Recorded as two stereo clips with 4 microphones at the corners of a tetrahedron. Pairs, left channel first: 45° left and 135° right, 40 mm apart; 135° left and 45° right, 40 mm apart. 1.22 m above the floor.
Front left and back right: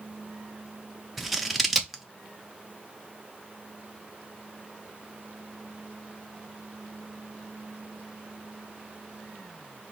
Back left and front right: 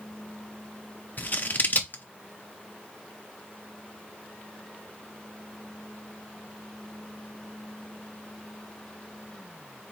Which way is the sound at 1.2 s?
140° left.